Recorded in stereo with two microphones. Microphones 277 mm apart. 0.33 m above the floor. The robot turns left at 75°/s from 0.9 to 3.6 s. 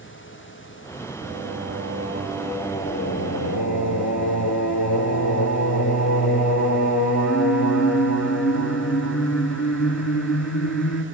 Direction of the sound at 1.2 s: 80° right.